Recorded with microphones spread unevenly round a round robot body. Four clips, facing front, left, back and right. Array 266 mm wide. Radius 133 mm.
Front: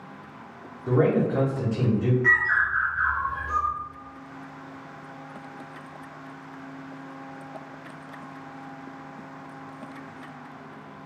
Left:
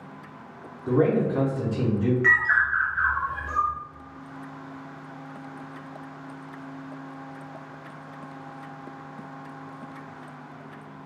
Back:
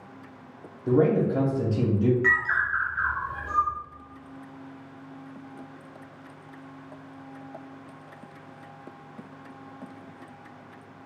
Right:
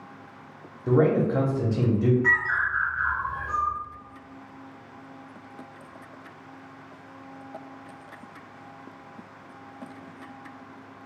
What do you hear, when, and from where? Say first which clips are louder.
0.9 s a man speaking: right 1 dB, even; 115° right, 0.8 m
2.2 s a bird: left 3 dB, front 2 dB; 130° left, 0.9 m